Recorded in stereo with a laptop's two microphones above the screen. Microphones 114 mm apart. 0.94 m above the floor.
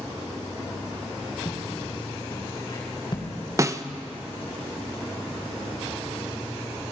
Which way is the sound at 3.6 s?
25° right (ahead or behind).